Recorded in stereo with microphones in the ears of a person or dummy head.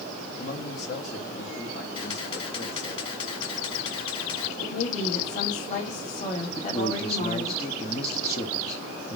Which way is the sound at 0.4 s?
60° left (ahead or behind).